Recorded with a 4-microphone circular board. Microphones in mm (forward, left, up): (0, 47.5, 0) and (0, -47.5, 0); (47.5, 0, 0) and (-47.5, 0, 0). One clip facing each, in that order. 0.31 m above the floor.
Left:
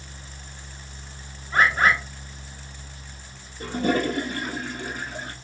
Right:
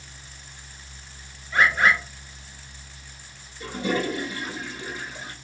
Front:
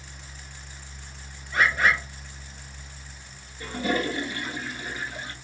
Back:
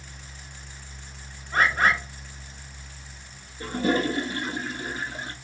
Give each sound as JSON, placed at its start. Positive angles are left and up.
{"t": 1.5, "sound": "a bird", "azimuth_deg": 135, "distance_m": 1.1}
{"t": 3.6, "sound": "a toilet flushing", "azimuth_deg": 125, "distance_m": 0.7}